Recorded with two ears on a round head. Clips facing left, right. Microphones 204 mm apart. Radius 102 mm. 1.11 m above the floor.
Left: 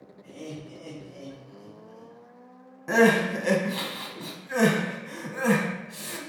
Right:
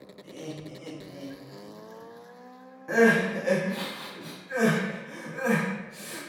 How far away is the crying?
About 0.7 m.